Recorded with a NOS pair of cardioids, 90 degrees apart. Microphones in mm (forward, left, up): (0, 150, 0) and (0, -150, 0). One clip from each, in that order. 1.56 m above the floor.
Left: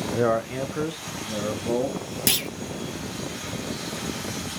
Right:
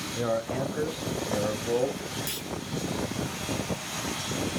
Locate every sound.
0.1 s a man speaking: 35° left, 0.6 m; by 2.0 s 10° left, 1.8 m
2.3 s a clunk: 70° left, 0.7 m